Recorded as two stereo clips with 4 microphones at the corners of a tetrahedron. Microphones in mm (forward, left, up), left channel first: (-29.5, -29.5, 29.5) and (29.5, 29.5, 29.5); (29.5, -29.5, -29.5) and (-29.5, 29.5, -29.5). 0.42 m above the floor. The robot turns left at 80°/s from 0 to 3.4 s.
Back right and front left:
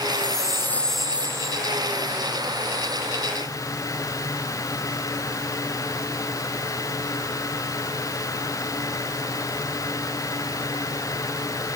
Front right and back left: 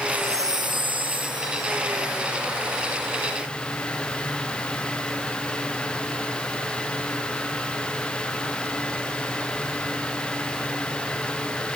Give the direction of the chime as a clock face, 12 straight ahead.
5 o'clock.